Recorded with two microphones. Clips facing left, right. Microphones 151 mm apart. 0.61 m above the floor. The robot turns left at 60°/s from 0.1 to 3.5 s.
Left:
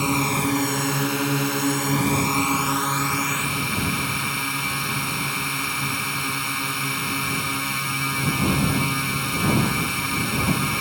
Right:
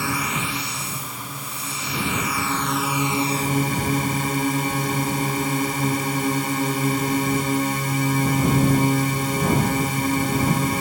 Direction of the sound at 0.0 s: 160° left.